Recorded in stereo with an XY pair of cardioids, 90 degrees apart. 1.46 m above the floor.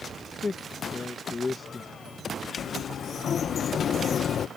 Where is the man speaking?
35° left.